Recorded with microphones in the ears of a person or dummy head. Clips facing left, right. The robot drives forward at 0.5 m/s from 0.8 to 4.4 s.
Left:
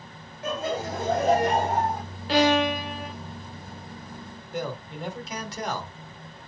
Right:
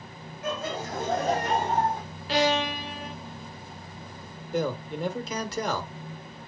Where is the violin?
40° left (ahead or behind), 0.5 m; by 3.1 s 35° left (ahead or behind), 0.6 m.